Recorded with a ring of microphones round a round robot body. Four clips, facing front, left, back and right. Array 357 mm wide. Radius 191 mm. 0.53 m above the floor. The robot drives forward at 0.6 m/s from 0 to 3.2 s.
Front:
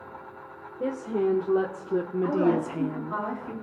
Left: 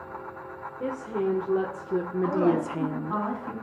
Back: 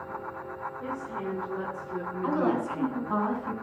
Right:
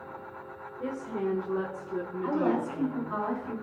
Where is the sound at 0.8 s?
20° left, 1.6 m; by 3.2 s 95° left, 0.7 m.